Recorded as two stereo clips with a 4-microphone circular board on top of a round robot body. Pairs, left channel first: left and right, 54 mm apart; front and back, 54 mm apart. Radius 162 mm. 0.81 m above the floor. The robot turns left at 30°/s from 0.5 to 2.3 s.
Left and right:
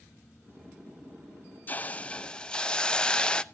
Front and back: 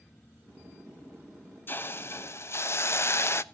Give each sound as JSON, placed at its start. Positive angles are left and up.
{"t": 1.7, "sound": "a hiss", "azimuth_deg": 40, "distance_m": 0.8}